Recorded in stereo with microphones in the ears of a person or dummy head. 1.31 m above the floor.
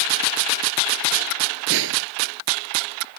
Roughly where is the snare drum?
Right.